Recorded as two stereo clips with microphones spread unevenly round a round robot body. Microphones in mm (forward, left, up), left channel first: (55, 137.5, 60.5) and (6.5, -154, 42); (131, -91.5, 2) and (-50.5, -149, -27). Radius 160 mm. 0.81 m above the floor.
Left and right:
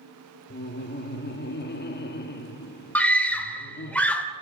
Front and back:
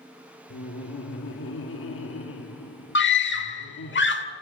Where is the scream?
5° right, 2.5 m.